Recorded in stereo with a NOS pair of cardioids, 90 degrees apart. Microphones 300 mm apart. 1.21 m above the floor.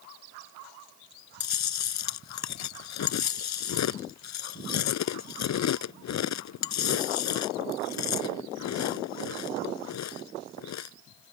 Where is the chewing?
65° left.